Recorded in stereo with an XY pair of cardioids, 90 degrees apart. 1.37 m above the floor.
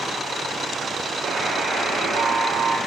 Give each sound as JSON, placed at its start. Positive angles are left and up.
{"t": 1.2, "sound": "a buzzer", "azimuth_deg": -70, "distance_m": 8.0}